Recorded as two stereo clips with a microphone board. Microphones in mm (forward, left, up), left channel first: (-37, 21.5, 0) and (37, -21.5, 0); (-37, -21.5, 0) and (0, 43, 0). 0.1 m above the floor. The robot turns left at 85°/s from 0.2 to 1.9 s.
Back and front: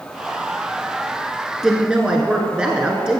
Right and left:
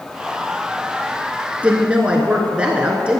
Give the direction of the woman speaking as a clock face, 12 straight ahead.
10 o'clock.